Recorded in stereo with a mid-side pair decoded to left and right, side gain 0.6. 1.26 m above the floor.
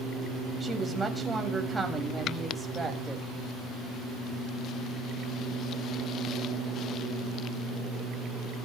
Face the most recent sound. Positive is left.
turn(degrees=-10)